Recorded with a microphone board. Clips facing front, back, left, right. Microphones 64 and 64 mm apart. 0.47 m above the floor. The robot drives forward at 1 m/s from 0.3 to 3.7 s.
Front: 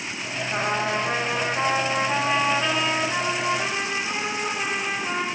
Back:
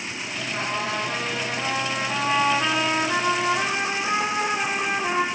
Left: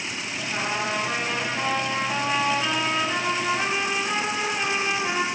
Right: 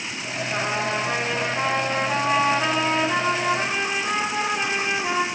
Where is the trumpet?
10° right, 2 m; by 5.2 s 160° right, 1.4 m.